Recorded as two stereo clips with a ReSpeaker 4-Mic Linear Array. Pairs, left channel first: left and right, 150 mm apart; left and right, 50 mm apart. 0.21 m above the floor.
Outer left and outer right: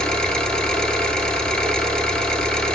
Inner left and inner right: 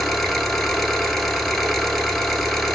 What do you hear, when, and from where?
0.0 s an engine running: 5° left (ahead or behind), 1.2 m